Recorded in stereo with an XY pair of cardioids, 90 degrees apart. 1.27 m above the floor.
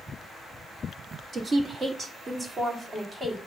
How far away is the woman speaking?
About 2 m.